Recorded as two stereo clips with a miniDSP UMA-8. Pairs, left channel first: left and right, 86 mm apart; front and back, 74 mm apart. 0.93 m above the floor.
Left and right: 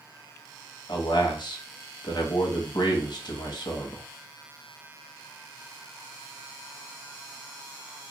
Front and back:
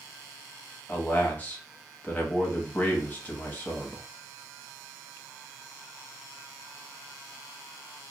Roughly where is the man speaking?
Ahead left.